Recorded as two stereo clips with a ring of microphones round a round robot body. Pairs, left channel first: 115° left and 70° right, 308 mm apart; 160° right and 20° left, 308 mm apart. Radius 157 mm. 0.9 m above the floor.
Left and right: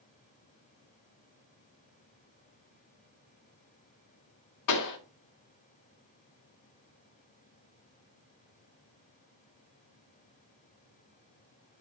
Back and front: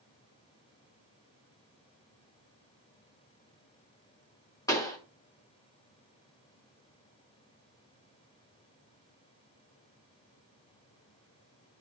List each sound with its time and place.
4.7 s a pop: 125° left, 1.8 m